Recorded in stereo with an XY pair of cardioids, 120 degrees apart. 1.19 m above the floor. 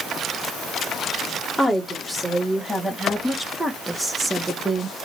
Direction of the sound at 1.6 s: Straight ahead.